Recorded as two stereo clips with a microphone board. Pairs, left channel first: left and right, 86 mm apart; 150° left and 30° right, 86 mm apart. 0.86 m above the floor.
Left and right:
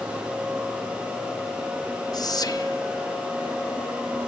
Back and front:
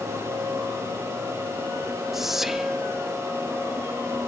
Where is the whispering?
55° left, 0.8 m.